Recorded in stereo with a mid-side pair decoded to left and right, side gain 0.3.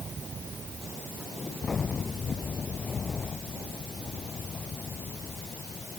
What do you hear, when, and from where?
Only background noise.